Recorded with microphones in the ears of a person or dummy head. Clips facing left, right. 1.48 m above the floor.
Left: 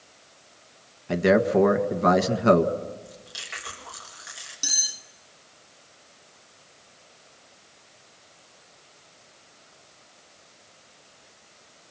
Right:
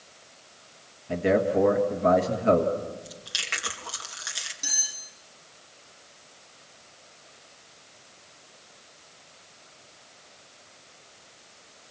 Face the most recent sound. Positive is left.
turn(degrees=15)  # may be behind; listen again after turning